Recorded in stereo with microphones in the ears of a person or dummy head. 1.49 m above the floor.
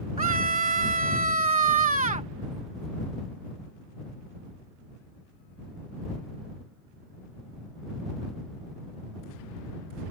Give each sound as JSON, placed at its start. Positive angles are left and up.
{"t": 0.2, "sound": "a scream", "side_deg": -30}